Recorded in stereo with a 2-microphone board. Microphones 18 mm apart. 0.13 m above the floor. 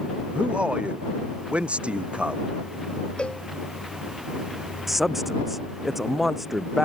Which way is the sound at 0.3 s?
75° right (ahead or behind).